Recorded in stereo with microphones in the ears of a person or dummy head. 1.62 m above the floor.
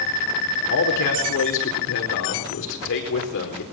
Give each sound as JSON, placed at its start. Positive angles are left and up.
{"t": 0.7, "sound": "a man speaking", "side_deg": 65, "distance_m": 4.0}